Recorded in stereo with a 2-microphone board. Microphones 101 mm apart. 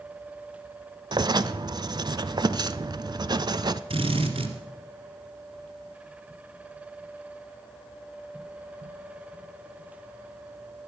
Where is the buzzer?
No buzzer in this recording.